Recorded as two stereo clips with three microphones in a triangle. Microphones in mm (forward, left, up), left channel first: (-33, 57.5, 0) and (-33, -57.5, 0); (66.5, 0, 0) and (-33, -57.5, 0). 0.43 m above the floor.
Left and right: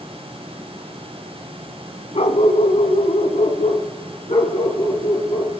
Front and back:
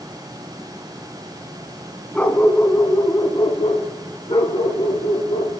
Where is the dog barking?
110° left, 1.4 m; by 5.5 s 60° left, 3 m.